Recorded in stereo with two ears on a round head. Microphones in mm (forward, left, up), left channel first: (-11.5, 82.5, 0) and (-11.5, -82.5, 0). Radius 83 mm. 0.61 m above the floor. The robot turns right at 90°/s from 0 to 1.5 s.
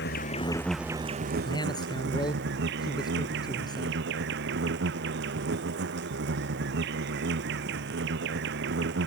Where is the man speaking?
30° left (ahead or behind); by 4.0 s 25° left (ahead or behind).